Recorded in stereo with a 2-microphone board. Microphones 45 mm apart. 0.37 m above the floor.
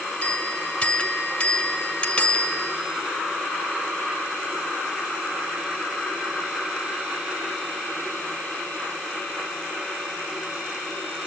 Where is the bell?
25° left (ahead or behind), 2.0 m.